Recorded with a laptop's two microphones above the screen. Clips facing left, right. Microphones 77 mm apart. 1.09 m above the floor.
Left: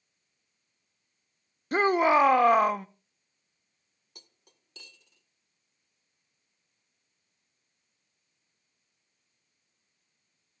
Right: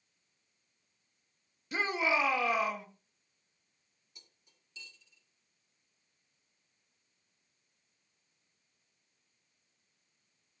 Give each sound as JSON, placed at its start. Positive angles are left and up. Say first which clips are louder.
{"t": 1.7, "sound": "a shout", "louder": "left 9 dB", "side_deg": 50, "distance_m": 0.7}
{"t": 4.2, "sound": "cutlery clinking", "louder": "left 8 dB", "side_deg": 60, "distance_m": 1.1}